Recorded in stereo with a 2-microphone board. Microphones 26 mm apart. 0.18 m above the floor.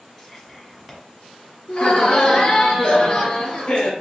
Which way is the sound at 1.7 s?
25° left (ahead or behind).